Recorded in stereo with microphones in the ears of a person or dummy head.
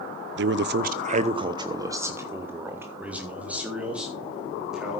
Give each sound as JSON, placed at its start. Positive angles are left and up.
{"t": 0.4, "sound": "a man speaking", "side_deg": -60, "distance_m": 0.6}